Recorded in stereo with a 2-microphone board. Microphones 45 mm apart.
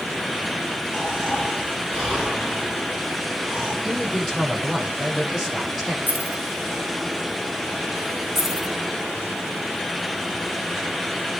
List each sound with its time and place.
0.9 s snoring: 5° left (ahead or behind), 5 m
3.8 s a man speaking: 5° left (ahead or behind), 7.5 m
6.1 s keys jangling: 40° right (ahead or behind), 1.5 m
8.3 s keys jangling: 5° left (ahead or behind), 7.5 m